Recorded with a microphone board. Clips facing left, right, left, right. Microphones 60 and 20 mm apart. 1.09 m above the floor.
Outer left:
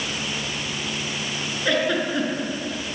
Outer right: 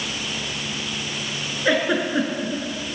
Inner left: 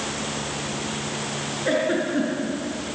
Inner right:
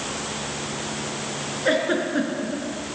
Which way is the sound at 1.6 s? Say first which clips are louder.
Outer right 2 dB, inner right 1 dB; 15° right (ahead or behind).